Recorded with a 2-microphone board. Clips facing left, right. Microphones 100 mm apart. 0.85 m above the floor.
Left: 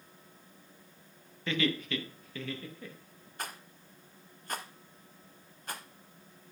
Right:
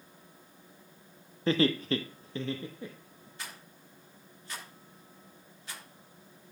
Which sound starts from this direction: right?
Laughter, at 1.5 s.